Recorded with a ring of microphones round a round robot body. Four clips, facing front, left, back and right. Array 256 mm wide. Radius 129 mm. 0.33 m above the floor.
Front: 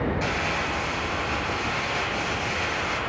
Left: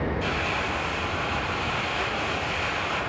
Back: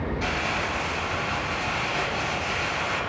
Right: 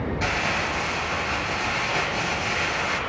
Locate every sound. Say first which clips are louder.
0.2 s crumpling: right 2 dB, front 1 dB; 85° right, 7 m